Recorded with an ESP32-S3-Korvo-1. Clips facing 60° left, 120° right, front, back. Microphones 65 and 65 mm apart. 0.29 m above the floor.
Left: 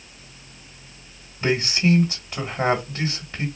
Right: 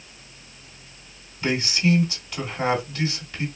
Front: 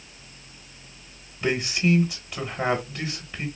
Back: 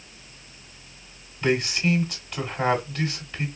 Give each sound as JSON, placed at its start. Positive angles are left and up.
{"t": 1.4, "sound": "a man speaking", "azimuth_deg": 70, "distance_m": 1.1}